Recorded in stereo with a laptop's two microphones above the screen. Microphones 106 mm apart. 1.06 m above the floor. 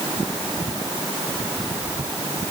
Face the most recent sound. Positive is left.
No sound to turn to.